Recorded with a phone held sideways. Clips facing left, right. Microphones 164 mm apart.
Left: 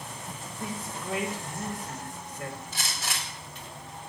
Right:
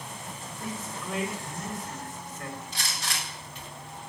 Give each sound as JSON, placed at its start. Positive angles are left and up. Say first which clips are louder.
{"t": 0.6, "sound": "a man speaking", "louder": "left 1 dB", "side_deg": 15, "distance_m": 2.5}
{"t": 2.7, "sound": "a gunshot", "louder": "even", "side_deg": 5, "distance_m": 4.0}